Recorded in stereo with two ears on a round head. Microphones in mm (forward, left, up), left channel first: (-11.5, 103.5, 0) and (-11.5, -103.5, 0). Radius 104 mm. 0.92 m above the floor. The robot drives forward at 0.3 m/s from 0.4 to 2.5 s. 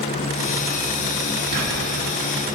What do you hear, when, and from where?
1.5 s whispering: 75° right (ahead or behind), 2.5 m